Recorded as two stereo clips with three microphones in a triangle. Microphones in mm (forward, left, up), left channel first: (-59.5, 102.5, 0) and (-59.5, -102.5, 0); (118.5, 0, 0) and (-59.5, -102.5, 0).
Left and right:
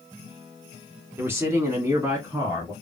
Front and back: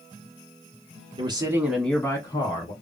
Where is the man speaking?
155° right, 1.1 m; by 2.7 s 15° right, 1.4 m.